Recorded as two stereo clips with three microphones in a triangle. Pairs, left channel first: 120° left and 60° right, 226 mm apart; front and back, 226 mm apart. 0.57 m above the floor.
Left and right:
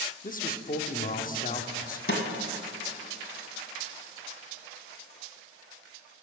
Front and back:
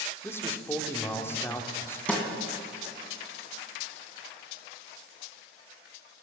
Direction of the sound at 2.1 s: 85° left.